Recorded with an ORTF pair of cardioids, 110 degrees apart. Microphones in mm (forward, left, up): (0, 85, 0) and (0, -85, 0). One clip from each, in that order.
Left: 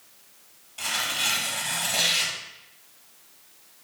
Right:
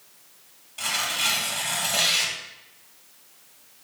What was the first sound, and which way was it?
Tearing paper, 5° right.